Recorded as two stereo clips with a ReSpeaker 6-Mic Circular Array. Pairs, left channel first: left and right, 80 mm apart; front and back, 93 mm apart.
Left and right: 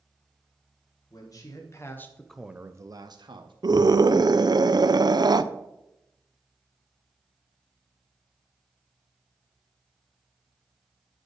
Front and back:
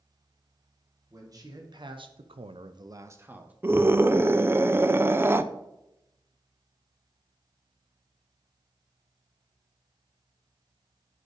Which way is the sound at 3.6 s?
115° right.